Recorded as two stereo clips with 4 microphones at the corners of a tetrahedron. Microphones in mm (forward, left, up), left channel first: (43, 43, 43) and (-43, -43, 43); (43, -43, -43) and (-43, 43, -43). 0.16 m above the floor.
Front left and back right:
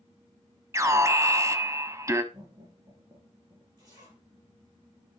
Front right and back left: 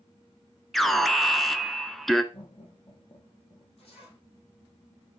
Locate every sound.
0.7 s an alarm: 130° right, 1.1 m
2.3 s laughter: 80° right, 4.5 m
3.8 s a zipper: 80° right, 5.5 m